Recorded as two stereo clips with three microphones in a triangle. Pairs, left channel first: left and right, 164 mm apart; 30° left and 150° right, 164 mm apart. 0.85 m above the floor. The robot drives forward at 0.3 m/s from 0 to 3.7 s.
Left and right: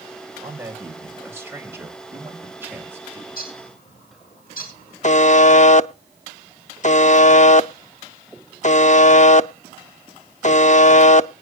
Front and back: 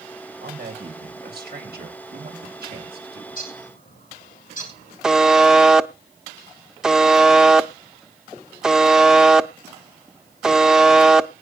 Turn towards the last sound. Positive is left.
turn(degrees=125)